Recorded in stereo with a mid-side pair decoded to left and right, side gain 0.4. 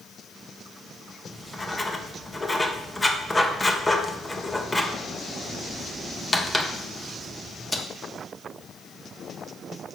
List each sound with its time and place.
1.3 s writing: 20° left, 1.4 m